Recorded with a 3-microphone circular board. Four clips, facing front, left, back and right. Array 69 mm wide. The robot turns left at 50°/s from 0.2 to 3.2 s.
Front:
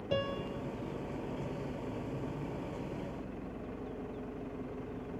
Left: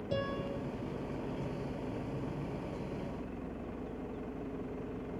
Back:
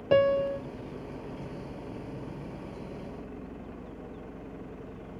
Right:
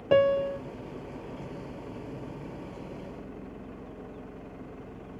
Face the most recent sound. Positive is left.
turn(degrees=80)